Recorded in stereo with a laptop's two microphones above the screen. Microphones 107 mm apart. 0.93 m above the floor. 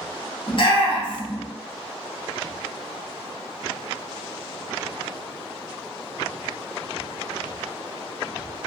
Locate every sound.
0.5 s a shout: 50° left (ahead or behind), 1.0 m